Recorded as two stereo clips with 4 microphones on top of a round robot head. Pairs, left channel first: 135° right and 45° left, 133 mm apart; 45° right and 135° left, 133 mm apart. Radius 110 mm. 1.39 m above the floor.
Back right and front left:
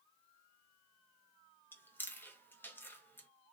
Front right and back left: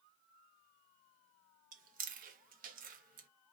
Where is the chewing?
150° left, 0.6 m.